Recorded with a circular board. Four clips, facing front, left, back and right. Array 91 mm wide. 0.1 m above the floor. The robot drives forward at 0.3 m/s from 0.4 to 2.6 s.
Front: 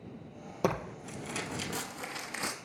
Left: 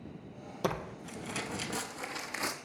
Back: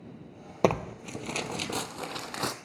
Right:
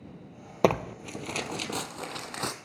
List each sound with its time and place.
0.6 s tearing paper: 120° right, 0.7 m; by 2.5 s 145° right, 1.1 m